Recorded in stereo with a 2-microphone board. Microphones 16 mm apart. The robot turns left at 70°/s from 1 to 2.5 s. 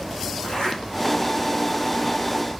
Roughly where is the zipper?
Left.